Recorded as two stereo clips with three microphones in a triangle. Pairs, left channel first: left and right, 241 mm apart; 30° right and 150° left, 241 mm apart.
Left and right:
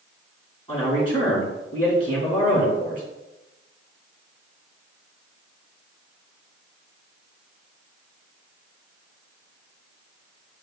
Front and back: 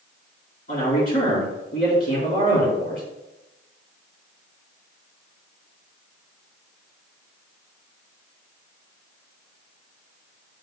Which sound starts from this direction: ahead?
A man speaking, at 0.7 s.